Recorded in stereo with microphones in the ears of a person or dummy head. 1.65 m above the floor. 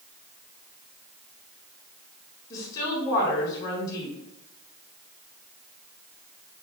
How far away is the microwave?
I don't hear a microwave.